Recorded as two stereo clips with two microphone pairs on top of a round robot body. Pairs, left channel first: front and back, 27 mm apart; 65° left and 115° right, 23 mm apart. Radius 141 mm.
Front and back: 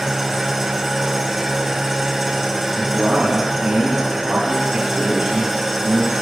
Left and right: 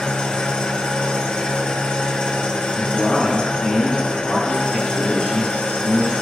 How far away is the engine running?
About 1.3 m.